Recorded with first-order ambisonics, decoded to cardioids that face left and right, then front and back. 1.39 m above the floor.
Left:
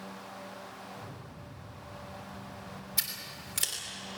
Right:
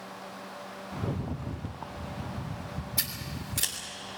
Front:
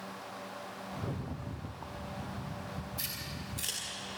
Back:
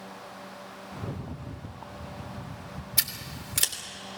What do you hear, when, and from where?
0.9 s a rattle: 100° right, 0.6 m
3.0 s scissors: straight behind, 3 m